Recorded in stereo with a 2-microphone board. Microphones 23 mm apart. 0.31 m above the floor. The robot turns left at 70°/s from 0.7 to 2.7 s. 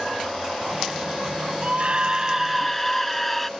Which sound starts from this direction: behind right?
A scream, at 1.6 s.